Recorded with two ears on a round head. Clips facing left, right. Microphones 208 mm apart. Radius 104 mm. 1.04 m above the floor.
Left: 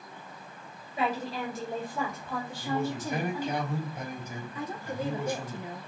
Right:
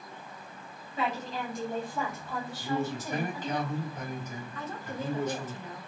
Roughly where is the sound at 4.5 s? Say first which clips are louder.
Left 3 dB; centre.